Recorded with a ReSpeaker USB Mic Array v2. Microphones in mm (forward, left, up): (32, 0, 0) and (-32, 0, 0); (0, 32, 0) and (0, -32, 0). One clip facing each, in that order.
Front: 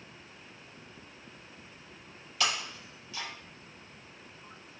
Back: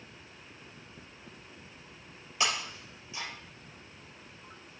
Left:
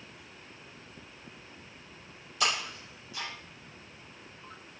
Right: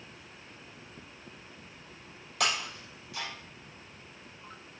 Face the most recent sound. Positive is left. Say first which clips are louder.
# back 1 dB, even
turn(degrees=-115)